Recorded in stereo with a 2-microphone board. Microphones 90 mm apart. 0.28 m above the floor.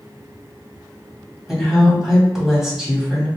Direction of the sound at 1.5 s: Centre (ahead or behind).